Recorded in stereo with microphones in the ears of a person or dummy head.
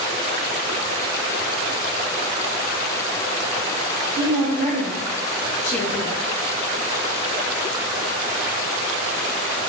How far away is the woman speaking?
About 1.1 m.